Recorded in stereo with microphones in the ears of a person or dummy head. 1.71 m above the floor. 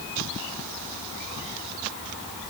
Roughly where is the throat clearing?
No throat clearing in this recording.